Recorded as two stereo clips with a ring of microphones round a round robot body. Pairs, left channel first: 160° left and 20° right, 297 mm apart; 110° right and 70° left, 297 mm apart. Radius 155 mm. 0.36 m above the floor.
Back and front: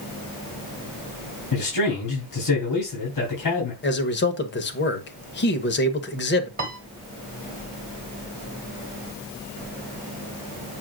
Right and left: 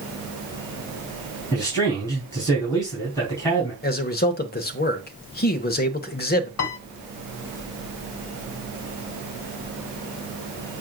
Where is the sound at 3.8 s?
160° right, 1.2 m.